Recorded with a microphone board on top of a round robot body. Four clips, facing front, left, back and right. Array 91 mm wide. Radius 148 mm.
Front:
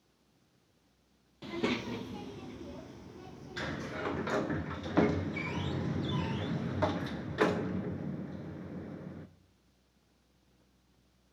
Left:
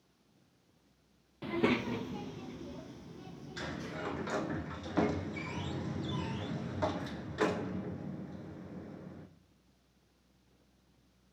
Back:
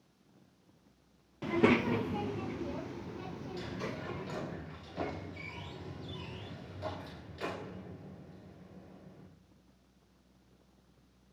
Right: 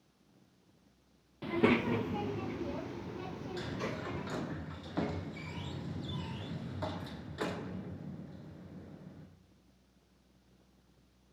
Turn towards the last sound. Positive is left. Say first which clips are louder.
# even, front 4 dB
turn(degrees=15)